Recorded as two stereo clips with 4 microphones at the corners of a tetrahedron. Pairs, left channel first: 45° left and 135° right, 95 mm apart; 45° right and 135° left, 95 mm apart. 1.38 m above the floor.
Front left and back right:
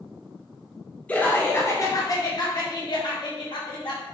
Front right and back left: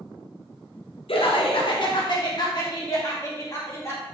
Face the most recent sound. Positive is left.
turn(degrees=15)